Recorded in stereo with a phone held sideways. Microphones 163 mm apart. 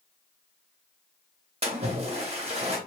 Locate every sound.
1.6 s a splash: 40° right (ahead or behind), 0.9 m